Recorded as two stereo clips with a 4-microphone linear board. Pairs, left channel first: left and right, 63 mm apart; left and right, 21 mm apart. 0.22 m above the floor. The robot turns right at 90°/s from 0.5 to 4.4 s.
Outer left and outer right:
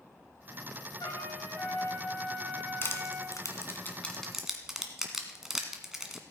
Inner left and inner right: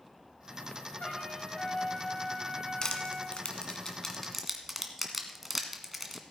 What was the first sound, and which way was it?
A trumpet, 75° left.